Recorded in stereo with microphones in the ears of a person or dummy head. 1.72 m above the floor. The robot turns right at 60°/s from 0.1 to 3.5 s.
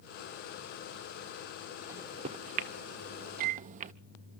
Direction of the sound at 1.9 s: 15° right (ahead or behind).